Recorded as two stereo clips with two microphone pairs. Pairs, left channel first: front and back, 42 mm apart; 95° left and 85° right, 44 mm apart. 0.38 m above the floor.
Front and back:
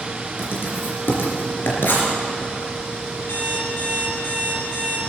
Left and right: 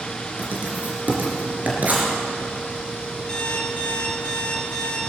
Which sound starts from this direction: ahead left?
An alarm clock, at 3.3 s.